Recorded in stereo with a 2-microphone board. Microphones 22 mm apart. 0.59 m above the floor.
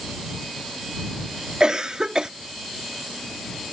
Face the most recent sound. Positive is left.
turn(degrees=-35)  # may be behind; listen again after turning